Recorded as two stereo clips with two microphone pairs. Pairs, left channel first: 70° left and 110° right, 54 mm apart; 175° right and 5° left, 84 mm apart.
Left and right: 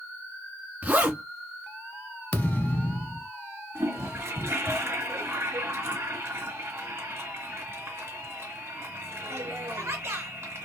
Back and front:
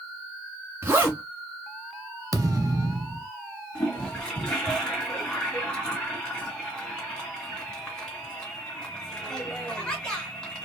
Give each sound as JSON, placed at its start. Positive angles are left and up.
{"t": 0.8, "sound": "a zipper", "azimuth_deg": -55, "distance_m": 1.9}
{"t": 2.3, "sound": "a thud", "azimuth_deg": 20, "distance_m": 0.8}
{"t": 3.8, "sound": "a toilet flushing", "azimuth_deg": -95, "distance_m": 2.5}